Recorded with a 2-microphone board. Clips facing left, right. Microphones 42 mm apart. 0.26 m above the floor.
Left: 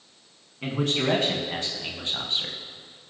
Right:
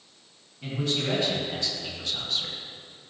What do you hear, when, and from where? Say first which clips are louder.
0.6 s a man speaking: left 4 dB; 55° left (ahead or behind), 3 m; by 2.6 s 30° left (ahead or behind), 1.7 m